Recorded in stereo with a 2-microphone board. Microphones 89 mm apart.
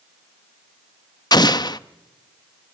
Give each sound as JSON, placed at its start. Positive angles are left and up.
{"t": 1.3, "sound": "an explosion", "side_deg": 50, "distance_m": 0.7}